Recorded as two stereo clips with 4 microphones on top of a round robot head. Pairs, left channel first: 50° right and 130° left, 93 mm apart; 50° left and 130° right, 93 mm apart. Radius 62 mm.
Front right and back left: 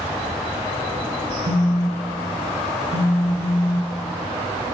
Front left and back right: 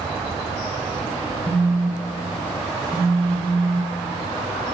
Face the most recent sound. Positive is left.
turn(degrees=115)